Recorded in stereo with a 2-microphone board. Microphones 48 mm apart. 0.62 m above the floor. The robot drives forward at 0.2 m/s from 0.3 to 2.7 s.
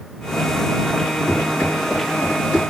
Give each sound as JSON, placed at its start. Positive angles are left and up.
{"t": 1.3, "sound": "running footsteps", "side_deg": 35, "distance_m": 3.5}